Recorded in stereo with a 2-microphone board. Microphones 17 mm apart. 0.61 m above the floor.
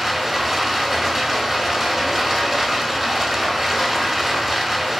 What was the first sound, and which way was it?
Running water, 15° right (ahead or behind).